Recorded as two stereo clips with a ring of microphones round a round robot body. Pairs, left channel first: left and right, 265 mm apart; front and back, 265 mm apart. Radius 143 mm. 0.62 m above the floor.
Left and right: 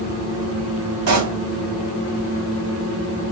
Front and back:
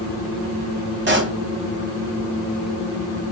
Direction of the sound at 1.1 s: 130° right.